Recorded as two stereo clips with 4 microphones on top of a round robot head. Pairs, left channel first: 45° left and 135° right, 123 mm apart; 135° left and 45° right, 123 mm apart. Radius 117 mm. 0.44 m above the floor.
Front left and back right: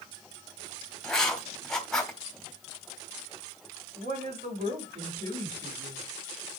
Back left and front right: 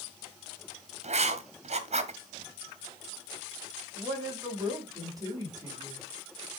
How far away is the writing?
About 1.2 m.